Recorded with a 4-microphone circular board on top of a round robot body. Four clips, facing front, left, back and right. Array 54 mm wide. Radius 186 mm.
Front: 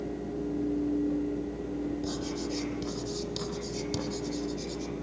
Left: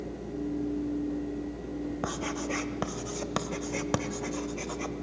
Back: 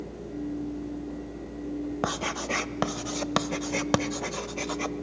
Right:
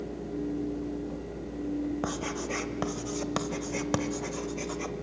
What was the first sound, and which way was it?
Writing, straight behind.